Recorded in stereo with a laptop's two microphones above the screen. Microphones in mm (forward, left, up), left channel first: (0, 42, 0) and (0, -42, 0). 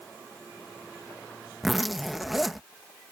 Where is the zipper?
Centre (ahead or behind).